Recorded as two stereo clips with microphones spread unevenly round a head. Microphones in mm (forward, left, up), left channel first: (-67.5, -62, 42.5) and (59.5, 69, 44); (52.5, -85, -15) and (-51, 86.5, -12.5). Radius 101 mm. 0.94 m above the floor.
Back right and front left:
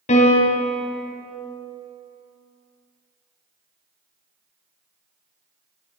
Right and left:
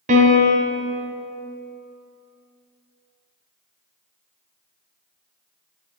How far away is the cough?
No cough in this recording.